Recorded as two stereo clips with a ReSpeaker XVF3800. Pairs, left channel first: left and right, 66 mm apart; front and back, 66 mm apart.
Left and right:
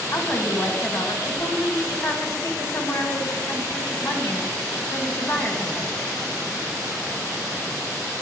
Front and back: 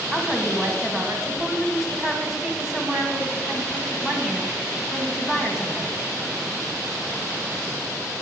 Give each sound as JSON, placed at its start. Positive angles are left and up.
{"t": 0.1, "sound": "a woman speaking", "azimuth_deg": 105, "distance_m": 1.2}